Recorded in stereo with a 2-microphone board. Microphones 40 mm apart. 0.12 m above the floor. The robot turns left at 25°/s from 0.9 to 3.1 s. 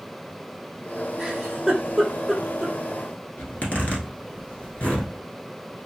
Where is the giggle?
10° right (ahead or behind), 1.0 m; by 2.8 s centre (ahead or behind), 1.0 m.